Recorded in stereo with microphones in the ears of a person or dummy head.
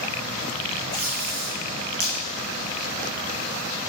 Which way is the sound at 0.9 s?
55° right (ahead or behind).